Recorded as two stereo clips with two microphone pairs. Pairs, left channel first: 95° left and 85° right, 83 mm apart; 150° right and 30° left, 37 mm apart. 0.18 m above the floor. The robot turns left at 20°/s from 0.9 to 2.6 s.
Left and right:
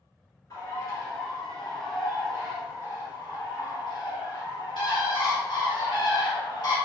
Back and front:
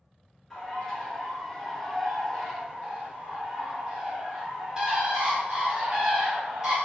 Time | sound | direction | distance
0.5 | a bird | 130° left | 1.6 m